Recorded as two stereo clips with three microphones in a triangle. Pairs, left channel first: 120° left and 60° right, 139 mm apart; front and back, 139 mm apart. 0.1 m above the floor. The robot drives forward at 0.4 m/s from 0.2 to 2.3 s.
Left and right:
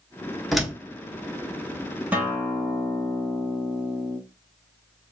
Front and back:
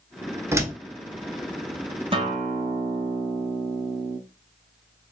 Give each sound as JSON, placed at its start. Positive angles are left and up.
{"t": 0.5, "sound": "a door slam", "azimuth_deg": -145, "distance_m": 1.0}
{"t": 2.1, "sound": "a guitar", "azimuth_deg": -135, "distance_m": 1.0}